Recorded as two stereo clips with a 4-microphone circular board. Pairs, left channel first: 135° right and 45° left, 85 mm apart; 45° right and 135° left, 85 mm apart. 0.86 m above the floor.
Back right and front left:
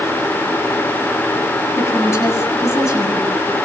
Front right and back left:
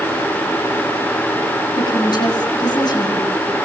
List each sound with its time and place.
1.8 s a woman speaking: 80° right, 8.5 m